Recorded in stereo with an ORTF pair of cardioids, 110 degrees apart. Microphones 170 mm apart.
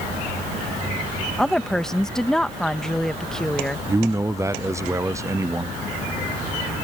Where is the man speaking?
15° right.